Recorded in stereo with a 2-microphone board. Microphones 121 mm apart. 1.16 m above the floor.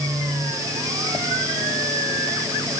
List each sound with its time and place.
Only background noise.